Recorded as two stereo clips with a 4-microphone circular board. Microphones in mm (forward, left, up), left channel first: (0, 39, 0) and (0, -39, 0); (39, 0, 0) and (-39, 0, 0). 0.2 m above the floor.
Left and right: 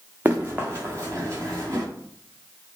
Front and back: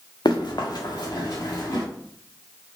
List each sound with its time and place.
0.2 s running footsteps: 25° right, 1.3 m; by 1.8 s 45° right, 2.5 m